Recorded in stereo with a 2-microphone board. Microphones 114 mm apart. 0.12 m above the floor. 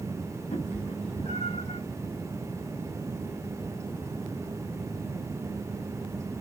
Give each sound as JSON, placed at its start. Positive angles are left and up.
{"t": 0.5, "sound": "a cat meowing", "side_deg": 70, "distance_m": 3.5}